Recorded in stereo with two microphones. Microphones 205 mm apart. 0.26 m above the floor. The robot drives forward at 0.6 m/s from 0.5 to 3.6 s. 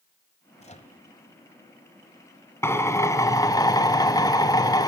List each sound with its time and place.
0.6 s a microwave: 30° left (ahead or behind), 1.0 m; by 1.0 s 35° left (ahead or behind), 0.9 m
2.6 s a drill: 15° left (ahead or behind), 1.6 m; by 4.9 s 20° left (ahead or behind), 1.1 m